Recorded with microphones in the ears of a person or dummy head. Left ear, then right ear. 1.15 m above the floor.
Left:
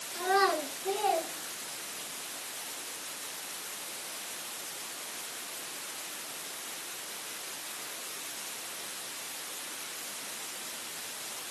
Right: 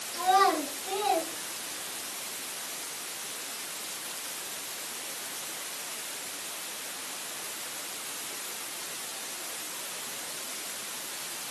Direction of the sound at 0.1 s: 25° left (ahead or behind).